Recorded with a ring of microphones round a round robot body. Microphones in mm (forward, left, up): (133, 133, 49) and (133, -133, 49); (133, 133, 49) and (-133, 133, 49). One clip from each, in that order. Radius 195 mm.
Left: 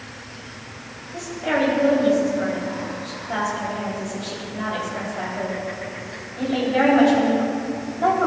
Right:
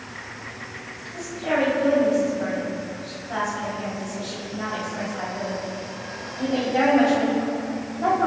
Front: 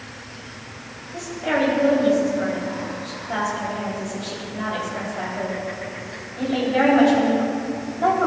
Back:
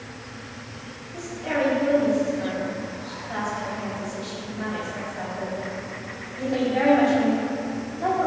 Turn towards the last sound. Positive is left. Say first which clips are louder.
# left 1 dB, front 4 dB
turn(degrees=45)